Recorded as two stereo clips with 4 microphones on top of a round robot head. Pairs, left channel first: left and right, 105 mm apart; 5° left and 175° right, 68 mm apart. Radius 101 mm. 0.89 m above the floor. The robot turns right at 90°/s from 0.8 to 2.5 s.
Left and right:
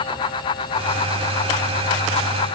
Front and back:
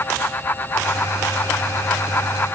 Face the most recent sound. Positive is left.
No sound to turn to.